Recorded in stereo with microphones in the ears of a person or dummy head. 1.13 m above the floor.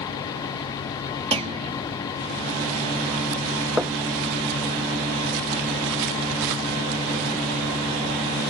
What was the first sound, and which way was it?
A clunk, 35° right (ahead or behind).